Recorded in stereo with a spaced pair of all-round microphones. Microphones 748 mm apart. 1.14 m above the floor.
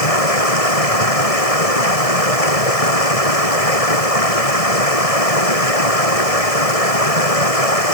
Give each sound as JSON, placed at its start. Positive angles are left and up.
{"t": 0.0, "sound": "running water", "side_deg": 50}